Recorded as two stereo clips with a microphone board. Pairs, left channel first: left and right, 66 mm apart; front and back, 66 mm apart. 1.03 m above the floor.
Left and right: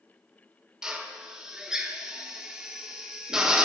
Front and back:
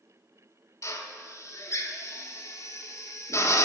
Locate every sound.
0.8 s a drill: 15° right, 0.6 m